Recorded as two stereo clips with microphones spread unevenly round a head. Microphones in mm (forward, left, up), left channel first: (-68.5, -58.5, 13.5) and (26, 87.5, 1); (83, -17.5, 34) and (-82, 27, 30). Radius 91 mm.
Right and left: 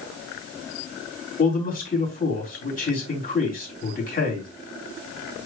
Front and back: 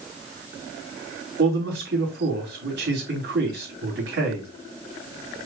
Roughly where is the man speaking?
Behind.